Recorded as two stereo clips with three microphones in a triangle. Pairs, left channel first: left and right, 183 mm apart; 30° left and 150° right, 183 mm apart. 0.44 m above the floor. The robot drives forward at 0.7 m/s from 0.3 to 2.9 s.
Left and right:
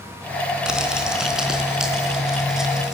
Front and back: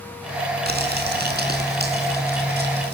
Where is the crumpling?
175° right, 3.5 m.